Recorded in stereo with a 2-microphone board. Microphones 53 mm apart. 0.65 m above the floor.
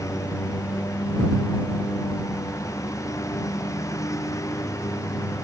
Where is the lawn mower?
85° left; by 5.5 s 80° left.